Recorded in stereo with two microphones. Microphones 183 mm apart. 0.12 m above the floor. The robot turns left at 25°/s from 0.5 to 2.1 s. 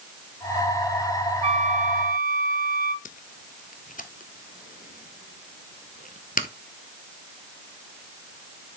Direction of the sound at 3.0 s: 45° left (ahead or behind).